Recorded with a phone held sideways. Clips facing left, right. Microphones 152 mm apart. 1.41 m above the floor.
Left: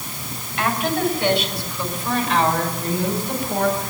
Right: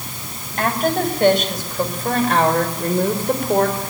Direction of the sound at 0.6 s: 45° right (ahead or behind).